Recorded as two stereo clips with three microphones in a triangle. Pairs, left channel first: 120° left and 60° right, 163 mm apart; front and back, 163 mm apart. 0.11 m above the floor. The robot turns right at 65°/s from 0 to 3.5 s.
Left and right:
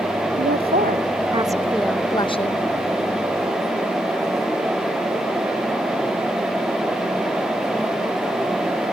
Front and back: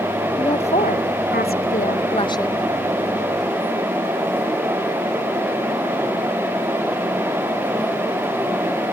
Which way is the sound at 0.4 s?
65° right.